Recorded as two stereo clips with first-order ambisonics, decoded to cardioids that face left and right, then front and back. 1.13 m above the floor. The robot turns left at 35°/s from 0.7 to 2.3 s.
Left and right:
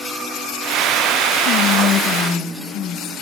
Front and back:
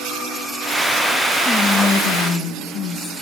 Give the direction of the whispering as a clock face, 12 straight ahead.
10 o'clock.